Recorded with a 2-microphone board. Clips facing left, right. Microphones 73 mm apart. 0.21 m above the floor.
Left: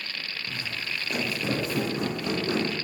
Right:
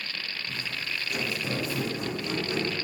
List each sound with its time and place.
0.5 s footsteps: 35° left (ahead or behind), 7 m; by 2.8 s 60° left (ahead or behind), 6.5 m